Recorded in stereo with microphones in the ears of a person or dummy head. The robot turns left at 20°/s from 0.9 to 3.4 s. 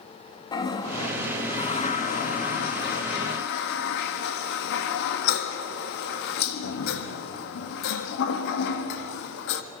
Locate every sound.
0.5 s a toilet flushing: 20° left (ahead or behind), 1.4 m; by 9.6 s 60° left (ahead or behind), 1.4 m